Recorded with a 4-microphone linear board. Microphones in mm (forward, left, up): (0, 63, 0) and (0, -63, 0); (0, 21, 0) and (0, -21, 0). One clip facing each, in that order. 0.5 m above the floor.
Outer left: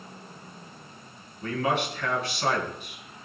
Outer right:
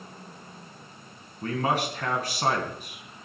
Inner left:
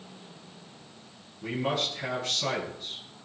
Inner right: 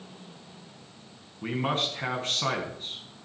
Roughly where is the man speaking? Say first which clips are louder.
Even, inner right 1 dB; right.